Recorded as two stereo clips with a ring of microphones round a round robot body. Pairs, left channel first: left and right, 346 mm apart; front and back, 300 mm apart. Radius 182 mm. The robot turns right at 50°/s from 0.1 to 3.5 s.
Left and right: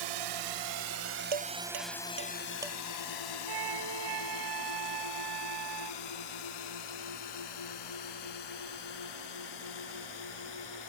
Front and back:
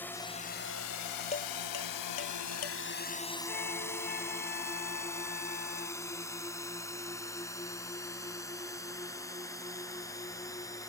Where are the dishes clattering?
75° right; by 2.8 s straight ahead.